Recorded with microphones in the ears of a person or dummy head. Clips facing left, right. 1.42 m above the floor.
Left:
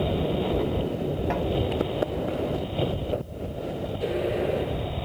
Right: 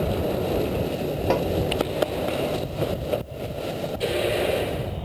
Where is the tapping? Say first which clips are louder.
Right 8 dB; 60° right (ahead or behind).